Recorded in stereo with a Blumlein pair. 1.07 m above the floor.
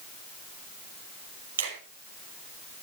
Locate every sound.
1.6 s a finger snap: 65° right, 5.5 m